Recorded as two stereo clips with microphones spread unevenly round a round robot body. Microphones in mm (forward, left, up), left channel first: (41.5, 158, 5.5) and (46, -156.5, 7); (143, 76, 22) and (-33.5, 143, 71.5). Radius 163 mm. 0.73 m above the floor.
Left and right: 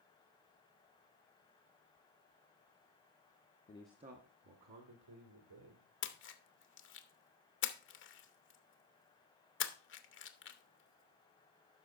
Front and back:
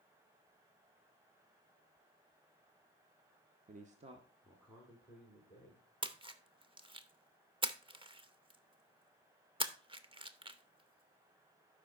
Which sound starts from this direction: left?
A splash, at 6.0 s.